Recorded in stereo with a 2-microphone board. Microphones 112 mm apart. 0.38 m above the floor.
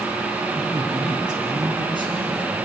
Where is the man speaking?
35° right (ahead or behind), 4 m; by 2.6 s 45° right (ahead or behind), 5.5 m.